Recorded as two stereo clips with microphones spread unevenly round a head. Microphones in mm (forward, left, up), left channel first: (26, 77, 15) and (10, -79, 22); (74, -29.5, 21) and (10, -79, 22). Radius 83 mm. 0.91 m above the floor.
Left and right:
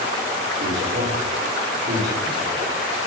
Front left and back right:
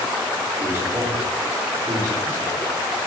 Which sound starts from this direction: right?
A man speaking, at 0.6 s.